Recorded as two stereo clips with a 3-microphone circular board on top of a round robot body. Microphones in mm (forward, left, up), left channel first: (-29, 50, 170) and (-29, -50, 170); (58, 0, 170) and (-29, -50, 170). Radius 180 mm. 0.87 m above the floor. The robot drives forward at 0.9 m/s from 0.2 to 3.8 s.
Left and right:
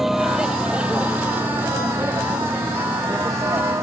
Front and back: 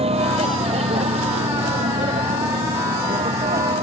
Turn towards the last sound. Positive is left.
turn(degrees=-150)